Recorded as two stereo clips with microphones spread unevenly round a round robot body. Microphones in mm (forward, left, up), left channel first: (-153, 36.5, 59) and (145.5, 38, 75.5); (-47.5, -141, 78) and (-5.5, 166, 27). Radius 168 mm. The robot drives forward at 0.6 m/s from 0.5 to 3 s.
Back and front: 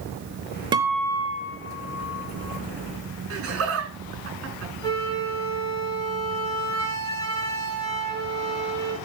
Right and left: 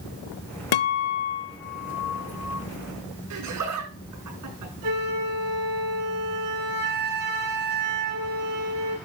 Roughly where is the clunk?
No clunk in this recording.